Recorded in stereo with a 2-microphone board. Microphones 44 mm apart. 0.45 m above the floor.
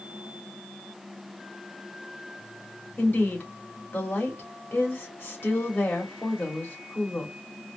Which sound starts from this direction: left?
A woman speaking, at 3.0 s.